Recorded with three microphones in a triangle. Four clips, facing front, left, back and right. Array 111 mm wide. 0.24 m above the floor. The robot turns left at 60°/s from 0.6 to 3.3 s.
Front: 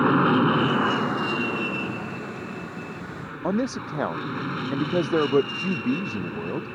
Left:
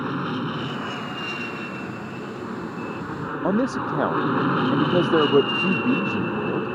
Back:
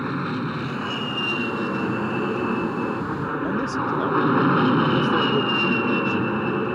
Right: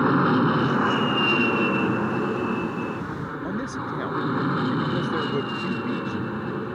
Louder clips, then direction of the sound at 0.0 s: Right 7 dB, front 7 dB; 40° right.